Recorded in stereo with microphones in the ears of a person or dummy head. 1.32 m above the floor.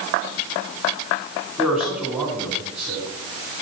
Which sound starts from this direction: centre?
A man speaking, at 1.6 s.